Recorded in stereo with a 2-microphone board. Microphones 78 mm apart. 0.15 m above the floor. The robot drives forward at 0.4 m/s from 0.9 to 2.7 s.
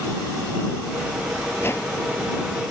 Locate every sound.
1.6 s a whoosh: 35° left (ahead or behind); by 1.9 s 40° left (ahead or behind)